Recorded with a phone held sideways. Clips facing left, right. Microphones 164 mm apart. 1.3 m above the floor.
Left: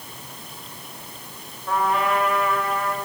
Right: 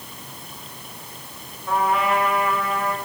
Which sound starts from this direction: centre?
A trumpet, at 1.7 s.